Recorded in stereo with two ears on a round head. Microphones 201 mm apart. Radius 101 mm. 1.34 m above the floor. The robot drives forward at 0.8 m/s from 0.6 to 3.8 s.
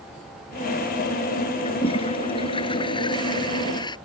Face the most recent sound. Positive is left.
turn(degrees=20)  # may be behind; listen again after turning